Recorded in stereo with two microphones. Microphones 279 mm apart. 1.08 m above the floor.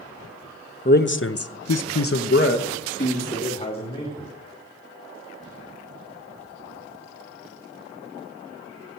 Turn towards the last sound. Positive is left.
turn(degrees=15)  # may be behind; listen again after turning